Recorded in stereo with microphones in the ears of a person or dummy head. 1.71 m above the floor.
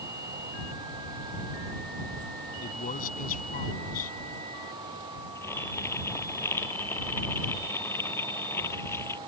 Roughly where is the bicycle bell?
I don't hear a bicycle bell.